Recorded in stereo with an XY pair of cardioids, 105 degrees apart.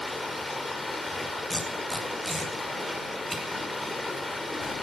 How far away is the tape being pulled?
About 9 m.